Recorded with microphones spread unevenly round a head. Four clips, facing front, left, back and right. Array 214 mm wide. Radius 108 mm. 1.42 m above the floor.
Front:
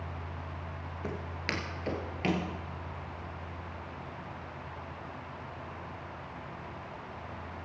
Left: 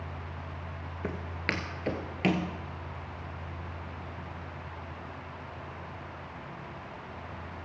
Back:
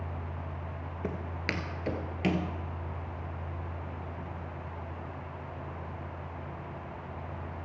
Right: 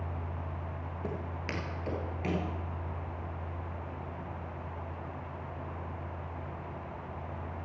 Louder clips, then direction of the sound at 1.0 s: Left 4 dB, back 2 dB; 125° left.